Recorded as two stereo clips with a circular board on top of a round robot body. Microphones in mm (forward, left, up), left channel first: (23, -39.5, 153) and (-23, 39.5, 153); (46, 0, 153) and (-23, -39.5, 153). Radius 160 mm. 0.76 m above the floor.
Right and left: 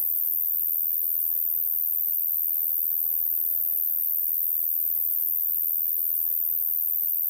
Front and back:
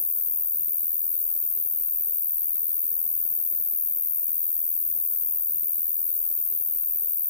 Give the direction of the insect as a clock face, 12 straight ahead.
12 o'clock.